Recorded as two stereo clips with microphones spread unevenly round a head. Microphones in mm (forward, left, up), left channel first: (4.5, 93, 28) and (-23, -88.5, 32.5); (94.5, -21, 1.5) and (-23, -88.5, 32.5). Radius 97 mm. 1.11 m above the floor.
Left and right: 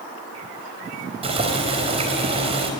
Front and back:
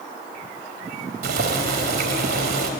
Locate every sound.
1.2 s boiling: 160° right, 4 m